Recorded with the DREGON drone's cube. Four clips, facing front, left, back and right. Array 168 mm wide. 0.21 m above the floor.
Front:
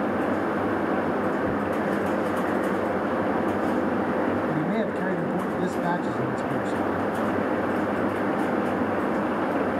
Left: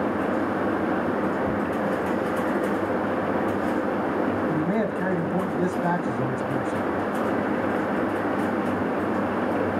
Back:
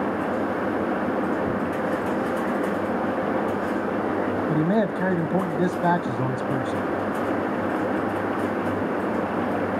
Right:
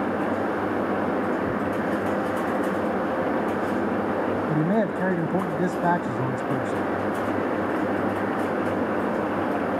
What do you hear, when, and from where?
4.5 s a man speaking: 145° right, 1.0 m